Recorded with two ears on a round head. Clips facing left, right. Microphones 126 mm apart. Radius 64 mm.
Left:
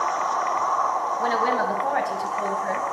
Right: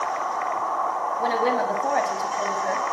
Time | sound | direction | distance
1.2 | a woman speaking | 20° right (ahead or behind) | 3 m